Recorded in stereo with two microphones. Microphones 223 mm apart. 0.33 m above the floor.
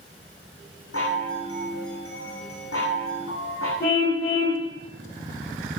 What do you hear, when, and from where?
0.9 s a chime: 80° left, 8 m
3.8 s a car horn: 45° left (ahead or behind), 8 m